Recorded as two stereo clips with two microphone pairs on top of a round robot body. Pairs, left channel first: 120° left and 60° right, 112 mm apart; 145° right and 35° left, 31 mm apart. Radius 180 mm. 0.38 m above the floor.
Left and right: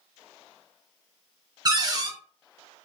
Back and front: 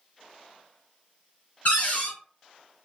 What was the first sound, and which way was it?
A cupboard door, 115° right.